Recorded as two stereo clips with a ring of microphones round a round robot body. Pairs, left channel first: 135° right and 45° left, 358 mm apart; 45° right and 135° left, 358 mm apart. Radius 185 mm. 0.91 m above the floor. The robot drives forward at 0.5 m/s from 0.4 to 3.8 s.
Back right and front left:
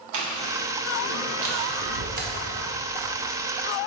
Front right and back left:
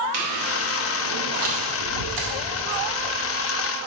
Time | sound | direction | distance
0.1 | chewing | 85° left | 2 m